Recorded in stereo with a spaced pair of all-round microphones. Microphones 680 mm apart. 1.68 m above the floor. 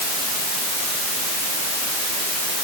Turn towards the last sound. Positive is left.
No sound to turn to.